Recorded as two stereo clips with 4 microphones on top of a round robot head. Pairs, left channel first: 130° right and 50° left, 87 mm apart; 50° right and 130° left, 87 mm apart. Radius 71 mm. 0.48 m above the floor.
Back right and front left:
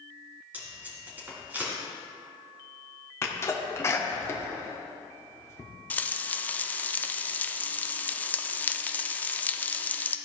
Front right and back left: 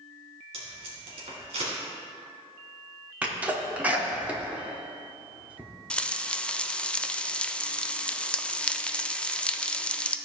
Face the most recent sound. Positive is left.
turn(degrees=-105)